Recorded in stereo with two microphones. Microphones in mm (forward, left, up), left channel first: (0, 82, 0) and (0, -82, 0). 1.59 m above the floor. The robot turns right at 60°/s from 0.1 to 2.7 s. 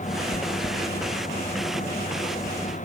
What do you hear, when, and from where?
0.3 s chewing: 5° right (ahead or behind); by 0.8 s 35° right (ahead or behind)